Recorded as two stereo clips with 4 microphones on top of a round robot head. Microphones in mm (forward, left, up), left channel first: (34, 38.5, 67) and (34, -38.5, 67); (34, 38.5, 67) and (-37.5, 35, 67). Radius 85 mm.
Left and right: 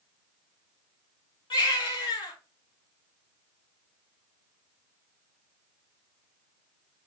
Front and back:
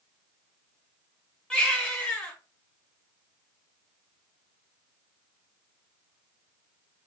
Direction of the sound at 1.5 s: 80° left.